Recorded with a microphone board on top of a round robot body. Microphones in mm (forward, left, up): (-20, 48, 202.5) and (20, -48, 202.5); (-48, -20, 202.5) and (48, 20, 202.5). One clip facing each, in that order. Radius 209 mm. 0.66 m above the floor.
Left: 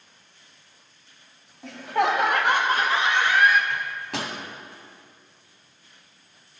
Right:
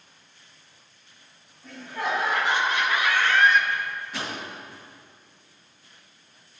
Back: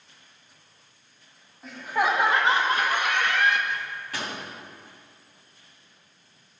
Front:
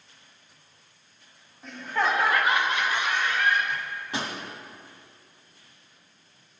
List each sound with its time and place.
1.6 s laughter: 115° left, 2 m; by 3.6 s 160° right, 1.6 m
3.7 s a microwave: 90° left, 2.5 m